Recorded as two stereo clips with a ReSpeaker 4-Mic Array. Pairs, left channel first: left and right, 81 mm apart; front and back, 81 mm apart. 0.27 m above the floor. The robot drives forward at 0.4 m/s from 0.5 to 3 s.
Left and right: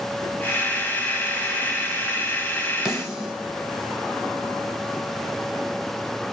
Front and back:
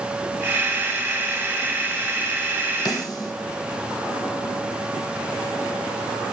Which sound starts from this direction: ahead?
A snare drum, at 2.9 s.